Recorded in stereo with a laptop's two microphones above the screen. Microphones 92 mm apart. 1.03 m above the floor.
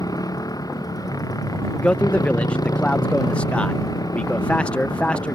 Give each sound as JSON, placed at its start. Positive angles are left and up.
{"t": 0.0, "sound": "a motorcycle", "side_deg": 45}
{"t": 1.7, "sound": "a man speaking", "side_deg": 10}